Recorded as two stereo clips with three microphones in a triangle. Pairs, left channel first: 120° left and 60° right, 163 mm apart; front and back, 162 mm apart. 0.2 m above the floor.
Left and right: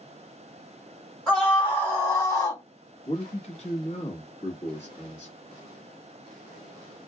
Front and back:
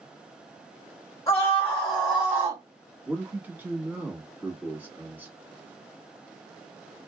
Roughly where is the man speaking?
Left.